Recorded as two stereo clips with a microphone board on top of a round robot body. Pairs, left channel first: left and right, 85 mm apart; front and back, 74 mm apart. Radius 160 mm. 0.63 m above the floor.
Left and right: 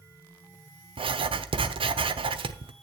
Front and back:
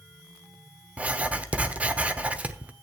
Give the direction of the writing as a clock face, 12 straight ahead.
4 o'clock.